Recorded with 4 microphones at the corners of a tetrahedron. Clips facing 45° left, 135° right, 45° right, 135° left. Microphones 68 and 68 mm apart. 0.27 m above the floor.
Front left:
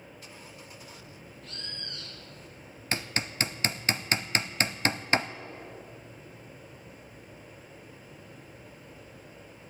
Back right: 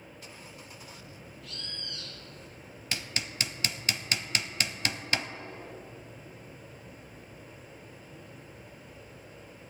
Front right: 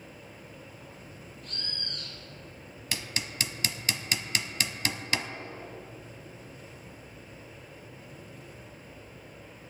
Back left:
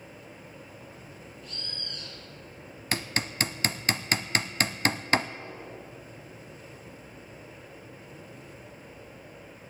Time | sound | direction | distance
1.4 | a bird | 5° right | 2 m
2.9 | hammering | 95° left | 0.5 m